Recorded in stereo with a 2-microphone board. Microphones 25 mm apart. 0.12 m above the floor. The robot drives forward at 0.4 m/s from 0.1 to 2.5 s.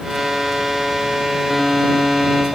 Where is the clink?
No clink in this recording.